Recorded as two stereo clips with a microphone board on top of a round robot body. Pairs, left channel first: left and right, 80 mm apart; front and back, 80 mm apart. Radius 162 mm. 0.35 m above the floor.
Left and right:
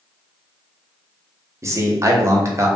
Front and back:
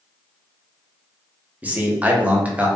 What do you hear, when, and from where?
1.6 s a man speaking: 115° right, 0.9 m